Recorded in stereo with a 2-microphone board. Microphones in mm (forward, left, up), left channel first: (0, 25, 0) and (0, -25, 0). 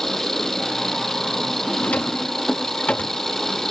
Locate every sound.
0.0 s an engine running: 5° left (ahead or behind)
1.8 s a drawer: 30° left (ahead or behind)